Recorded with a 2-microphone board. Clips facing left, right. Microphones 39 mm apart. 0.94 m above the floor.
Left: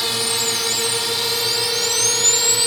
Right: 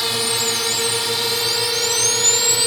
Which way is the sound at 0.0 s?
5° right (ahead or behind).